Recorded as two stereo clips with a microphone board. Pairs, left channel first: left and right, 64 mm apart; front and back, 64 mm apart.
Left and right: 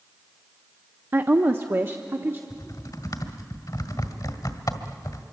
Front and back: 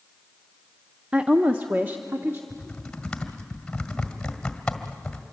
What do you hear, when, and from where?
1.1 s a woman speaking: 115° right, 0.7 m; by 2.4 s 135° right, 1.3 m
2.5 s typing on a keyboard: 80° left, 1.7 m